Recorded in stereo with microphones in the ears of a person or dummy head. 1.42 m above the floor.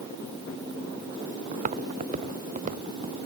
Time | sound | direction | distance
1.5 | footsteps | 40° right (ahead or behind) | ?